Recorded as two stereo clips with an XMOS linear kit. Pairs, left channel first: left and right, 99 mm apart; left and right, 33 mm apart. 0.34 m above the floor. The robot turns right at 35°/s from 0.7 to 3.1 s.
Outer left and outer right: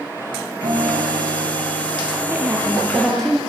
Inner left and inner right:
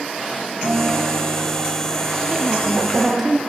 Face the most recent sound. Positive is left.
turn(degrees=5)  # may be behind; listen again after turning